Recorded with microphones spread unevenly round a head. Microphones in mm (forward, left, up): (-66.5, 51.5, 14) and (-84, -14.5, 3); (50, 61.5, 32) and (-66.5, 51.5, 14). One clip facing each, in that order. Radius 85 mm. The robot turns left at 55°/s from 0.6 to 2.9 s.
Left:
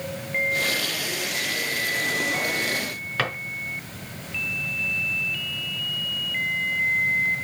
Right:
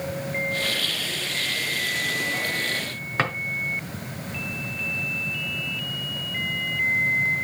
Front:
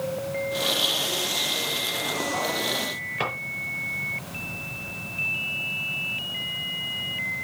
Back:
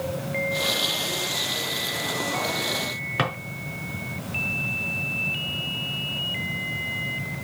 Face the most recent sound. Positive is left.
turn(degrees=-170)